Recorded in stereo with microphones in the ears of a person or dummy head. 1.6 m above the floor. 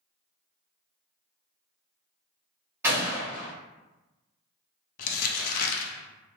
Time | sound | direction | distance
2.8 | a gunshot | 15° right (ahead or behind) | 1.3 m
5.0 | crumpling | 55° left (ahead or behind) | 0.6 m